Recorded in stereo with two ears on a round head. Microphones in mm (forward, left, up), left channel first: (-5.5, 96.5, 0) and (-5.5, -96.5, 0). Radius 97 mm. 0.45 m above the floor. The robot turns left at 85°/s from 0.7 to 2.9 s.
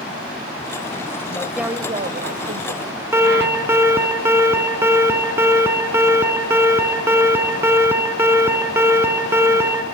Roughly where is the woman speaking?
Ahead left.